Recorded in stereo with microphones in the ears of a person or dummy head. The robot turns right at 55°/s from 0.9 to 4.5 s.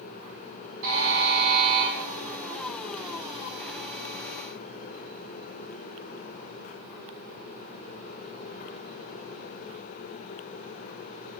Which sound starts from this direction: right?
A buzzer, at 0.8 s.